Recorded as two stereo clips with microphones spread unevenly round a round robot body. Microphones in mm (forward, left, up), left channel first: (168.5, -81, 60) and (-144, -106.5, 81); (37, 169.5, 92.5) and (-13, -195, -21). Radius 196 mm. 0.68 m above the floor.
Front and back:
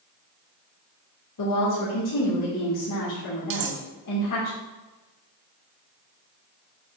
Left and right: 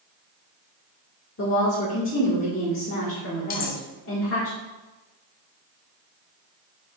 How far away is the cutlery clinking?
About 0.7 m.